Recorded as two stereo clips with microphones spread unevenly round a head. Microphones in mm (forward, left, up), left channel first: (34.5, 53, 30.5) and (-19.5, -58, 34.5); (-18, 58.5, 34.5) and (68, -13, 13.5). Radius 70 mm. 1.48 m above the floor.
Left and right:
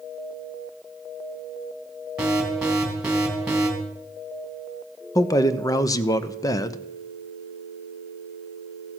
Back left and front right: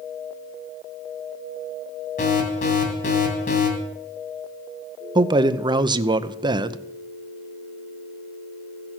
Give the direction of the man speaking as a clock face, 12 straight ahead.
12 o'clock.